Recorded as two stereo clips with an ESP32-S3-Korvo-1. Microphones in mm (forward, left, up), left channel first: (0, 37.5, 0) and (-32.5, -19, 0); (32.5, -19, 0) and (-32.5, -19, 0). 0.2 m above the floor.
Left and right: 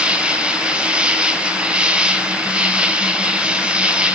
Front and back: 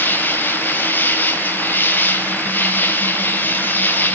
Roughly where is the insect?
Ahead right.